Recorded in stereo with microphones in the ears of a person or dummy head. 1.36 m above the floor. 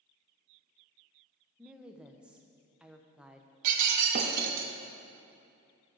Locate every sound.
1.6 s a woman speaking: 5° right (ahead or behind), 0.6 m
3.6 s breaking glass: 50° right (ahead or behind), 1.0 m